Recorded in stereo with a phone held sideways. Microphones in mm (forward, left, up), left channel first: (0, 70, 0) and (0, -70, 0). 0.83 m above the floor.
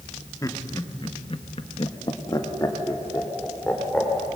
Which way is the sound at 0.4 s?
25° left (ahead or behind).